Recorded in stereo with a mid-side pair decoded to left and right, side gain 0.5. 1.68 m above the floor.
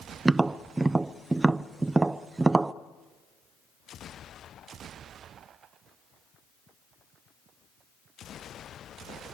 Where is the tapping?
15° right, 0.9 m.